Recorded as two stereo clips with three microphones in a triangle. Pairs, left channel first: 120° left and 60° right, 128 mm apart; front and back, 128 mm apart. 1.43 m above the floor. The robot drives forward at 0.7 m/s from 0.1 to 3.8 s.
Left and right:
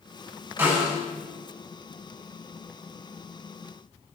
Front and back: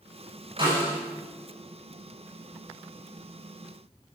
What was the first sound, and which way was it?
A snare drum, 130° right.